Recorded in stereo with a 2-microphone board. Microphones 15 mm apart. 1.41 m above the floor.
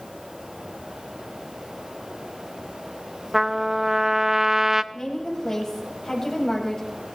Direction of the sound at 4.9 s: 35° left (ahead or behind).